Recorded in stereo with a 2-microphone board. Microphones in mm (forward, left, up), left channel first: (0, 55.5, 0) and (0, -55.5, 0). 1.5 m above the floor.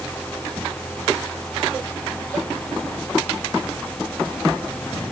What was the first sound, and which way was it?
Only background noise.